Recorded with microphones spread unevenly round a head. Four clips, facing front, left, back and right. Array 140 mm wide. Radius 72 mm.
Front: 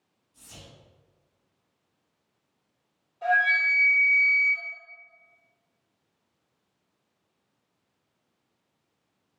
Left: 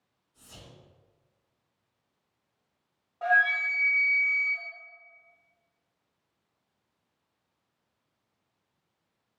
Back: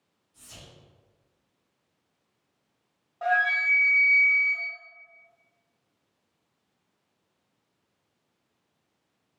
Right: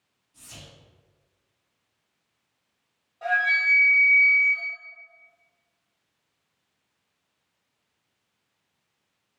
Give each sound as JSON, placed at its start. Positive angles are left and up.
{"t": 0.3, "sound": "whispering", "azimuth_deg": -105, "distance_m": 2.0}
{"t": 3.2, "sound": "a flute", "azimuth_deg": 150, "distance_m": 1.5}